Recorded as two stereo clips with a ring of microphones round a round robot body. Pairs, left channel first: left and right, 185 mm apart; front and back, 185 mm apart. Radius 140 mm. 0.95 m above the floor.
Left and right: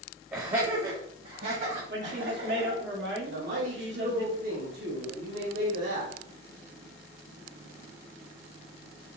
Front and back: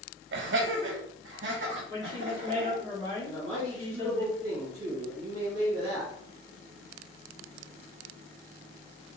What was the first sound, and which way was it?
Laughter, 165° right.